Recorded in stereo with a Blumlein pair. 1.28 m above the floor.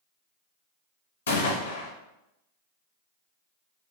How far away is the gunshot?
About 0.6 m.